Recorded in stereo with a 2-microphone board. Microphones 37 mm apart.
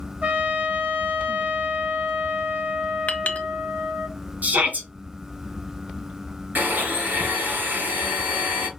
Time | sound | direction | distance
0.2 | a trumpet | 40° right (ahead or behind) | 2 m
3.1 | a clink | 40° left (ahead or behind) | 0.7 m
4.4 | a shout | 50° right (ahead or behind) | 1.8 m
6.5 | a blender | 60° right (ahead or behind) | 4 m